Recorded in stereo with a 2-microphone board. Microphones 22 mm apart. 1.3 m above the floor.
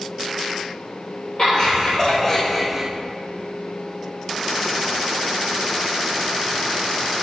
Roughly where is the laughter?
Left.